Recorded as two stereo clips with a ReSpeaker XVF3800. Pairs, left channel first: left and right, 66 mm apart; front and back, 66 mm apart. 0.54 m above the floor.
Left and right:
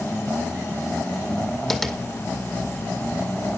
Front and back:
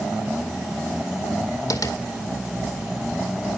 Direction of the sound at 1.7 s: Straight ahead.